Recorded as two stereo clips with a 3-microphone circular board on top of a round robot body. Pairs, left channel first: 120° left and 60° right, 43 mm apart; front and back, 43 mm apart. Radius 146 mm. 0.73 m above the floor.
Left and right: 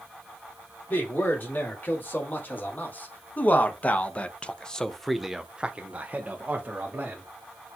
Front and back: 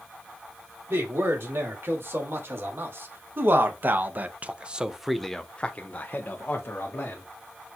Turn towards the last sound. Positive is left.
turn(degrees=-20)